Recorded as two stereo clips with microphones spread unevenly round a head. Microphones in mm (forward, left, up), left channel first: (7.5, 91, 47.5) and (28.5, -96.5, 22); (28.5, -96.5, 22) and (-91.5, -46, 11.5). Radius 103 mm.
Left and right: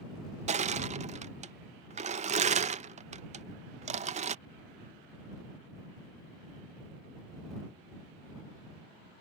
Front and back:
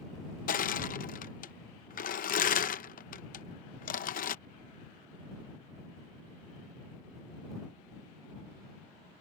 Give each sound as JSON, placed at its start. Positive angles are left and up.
{"t": 0.5, "sound": "crushing", "azimuth_deg": -30}